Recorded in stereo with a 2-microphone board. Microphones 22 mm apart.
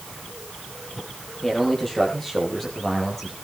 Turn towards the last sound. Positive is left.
turn(degrees=10)  # may be behind; listen again after turning